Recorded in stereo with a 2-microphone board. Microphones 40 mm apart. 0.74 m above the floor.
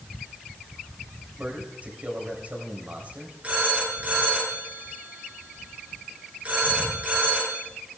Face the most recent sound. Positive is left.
turn(degrees=-35)  # may be behind; listen again after turning